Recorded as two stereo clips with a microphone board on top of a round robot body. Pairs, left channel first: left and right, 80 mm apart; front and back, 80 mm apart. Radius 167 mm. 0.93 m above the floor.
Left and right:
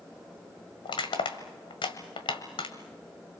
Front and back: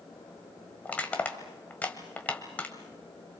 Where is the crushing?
70° left, 1.5 m.